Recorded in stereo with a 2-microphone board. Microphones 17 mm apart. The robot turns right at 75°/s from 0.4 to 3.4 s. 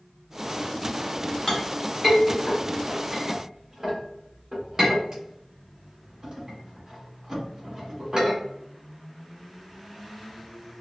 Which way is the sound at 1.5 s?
15° left (ahead or behind).